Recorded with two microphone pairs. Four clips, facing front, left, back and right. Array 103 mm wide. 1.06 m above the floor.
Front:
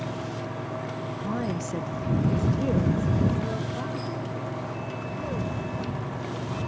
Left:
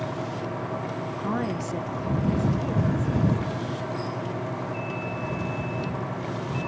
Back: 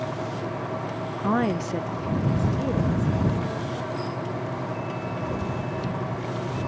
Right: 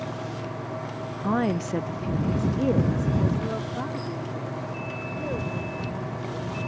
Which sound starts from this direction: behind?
A woman speaking, at 1.2 s.